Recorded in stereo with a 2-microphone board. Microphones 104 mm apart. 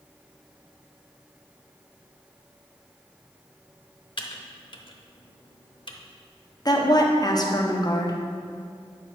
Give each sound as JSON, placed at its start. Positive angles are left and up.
{"t": 4.2, "sound": "typing on a keyboard", "side_deg": 50, "distance_m": 0.7}
{"t": 6.7, "sound": "a woman speaking", "side_deg": 40, "distance_m": 0.9}